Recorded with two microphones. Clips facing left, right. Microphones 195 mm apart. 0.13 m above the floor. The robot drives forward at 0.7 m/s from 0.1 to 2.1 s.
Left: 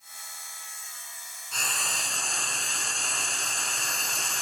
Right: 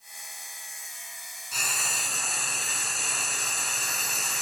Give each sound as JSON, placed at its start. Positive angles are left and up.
{"t": 1.5, "sound": "frying", "side_deg": -5, "distance_m": 1.2}